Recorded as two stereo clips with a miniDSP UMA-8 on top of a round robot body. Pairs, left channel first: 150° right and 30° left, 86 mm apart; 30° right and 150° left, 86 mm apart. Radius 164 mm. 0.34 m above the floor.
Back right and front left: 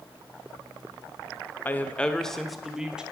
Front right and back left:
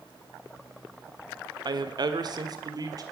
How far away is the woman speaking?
About 1.2 m.